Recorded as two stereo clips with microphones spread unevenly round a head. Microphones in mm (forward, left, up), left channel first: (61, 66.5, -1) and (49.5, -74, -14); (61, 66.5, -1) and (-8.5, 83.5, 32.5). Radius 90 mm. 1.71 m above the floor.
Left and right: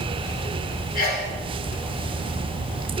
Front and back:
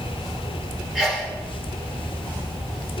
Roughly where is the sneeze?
Left.